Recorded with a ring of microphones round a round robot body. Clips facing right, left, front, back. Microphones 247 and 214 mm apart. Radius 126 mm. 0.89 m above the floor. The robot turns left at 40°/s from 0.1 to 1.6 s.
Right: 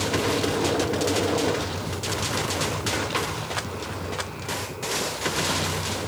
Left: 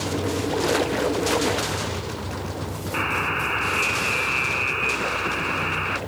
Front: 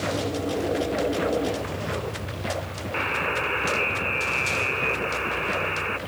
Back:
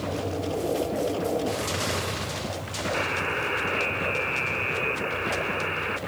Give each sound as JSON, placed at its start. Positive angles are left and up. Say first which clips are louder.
{"t": 2.9, "sound": "a buzzer", "louder": "even, front 4 dB", "azimuth_deg": 90}